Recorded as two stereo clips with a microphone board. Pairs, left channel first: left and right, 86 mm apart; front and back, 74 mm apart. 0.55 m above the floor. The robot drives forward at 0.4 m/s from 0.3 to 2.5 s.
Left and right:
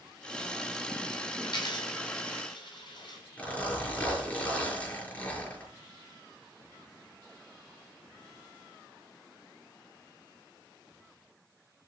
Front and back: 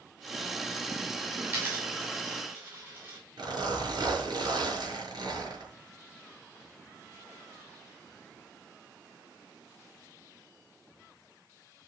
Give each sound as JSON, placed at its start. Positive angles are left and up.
{"t": 1.4, "sound": "a dropped coin", "azimuth_deg": 120, "distance_m": 8.5}
{"t": 3.4, "sound": "a zipper", "azimuth_deg": 160, "distance_m": 6.5}